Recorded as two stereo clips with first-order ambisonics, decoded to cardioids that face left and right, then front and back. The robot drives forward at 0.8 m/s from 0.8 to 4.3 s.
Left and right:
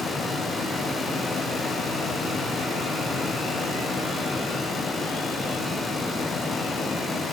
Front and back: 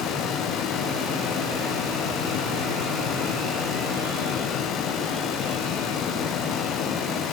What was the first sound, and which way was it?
Only background noise.